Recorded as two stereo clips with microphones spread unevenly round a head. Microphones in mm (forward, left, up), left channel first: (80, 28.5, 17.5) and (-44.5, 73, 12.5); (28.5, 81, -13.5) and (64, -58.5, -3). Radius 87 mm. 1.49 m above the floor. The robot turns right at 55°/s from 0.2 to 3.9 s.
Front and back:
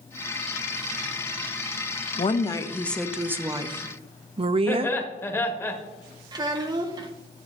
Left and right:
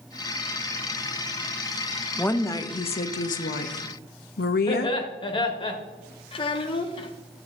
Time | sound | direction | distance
2.2 | a woman speaking | 25° left | 0.7 m
4.7 | laughter | 50° left | 1.6 m
6.3 | a child speaking | 130° left | 0.6 m